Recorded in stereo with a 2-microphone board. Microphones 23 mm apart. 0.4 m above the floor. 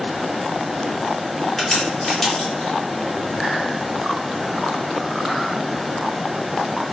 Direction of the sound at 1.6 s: 10° left (ahead or behind).